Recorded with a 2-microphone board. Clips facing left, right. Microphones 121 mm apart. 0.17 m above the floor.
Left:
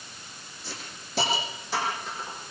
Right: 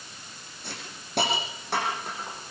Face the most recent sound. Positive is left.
turn(degrees=-60)  # may be behind; listen again after turning